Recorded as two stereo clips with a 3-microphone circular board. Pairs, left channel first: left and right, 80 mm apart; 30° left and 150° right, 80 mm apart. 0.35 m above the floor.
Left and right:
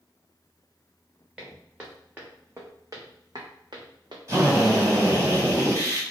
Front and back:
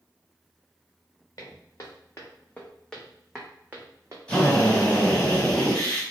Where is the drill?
45° right, 1.4 m.